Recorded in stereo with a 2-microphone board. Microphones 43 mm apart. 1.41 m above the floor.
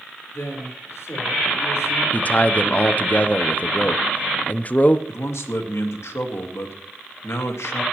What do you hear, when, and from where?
0.3 s a man speaking: 85° left, 4 m
2.1 s a man speaking: 35° left (ahead or behind), 0.6 m
5.1 s a man speaking: 85° left, 1.7 m